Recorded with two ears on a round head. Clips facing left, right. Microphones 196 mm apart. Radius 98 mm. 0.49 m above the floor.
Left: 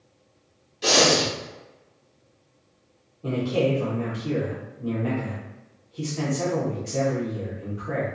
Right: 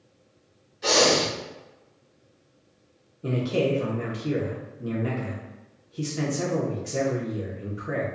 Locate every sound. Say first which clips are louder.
0.8 s breathing: left 1 dB; 45° left (ahead or behind), 0.9 m
3.2 s a man speaking: left 1 dB; 20° right (ahead or behind), 0.7 m